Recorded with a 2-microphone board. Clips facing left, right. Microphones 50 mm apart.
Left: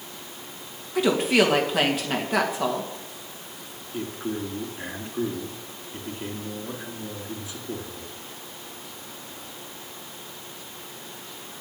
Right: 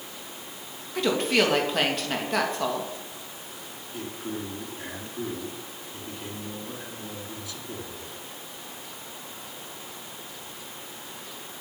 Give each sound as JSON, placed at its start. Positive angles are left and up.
{"t": 0.9, "sound": "a woman speaking", "side_deg": 5, "distance_m": 2.5}
{"t": 3.9, "sound": "a man speaking", "side_deg": 20, "distance_m": 3.0}